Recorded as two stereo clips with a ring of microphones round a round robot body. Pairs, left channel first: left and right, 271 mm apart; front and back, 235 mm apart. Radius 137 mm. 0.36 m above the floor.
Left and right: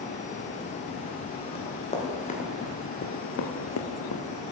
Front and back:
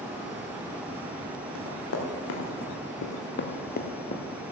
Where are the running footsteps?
20° left, 4 m; by 4.2 s 65° left, 1.9 m.